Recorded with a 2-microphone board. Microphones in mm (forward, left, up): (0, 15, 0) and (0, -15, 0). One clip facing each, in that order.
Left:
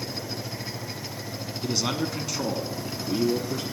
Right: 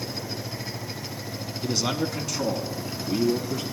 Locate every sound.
1.6 s a man speaking: centre (ahead or behind), 1.1 m; by 3.6 s 15° left (ahead or behind), 1.6 m